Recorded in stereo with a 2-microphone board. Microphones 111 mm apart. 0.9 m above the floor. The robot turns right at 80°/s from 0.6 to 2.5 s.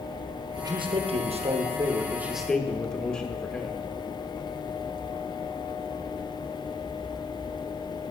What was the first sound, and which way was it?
A man speaking, 145° right.